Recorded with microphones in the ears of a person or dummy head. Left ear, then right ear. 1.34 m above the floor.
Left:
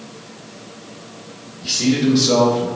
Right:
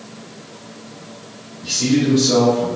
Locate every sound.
1.6 s a man speaking: 70° left (ahead or behind), 1.3 m